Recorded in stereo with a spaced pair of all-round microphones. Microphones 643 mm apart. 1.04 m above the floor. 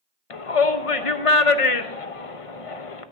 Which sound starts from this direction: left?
A shout, at 0.3 s.